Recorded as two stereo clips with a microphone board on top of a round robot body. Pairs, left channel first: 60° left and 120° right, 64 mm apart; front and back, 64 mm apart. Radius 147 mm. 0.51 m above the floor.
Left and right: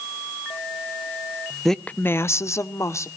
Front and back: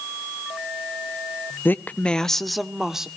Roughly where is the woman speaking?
Ahead right.